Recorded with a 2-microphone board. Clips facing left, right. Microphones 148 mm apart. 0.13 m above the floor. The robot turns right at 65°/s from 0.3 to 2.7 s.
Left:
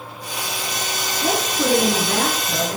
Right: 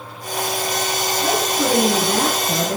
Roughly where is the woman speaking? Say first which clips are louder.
Even; behind left.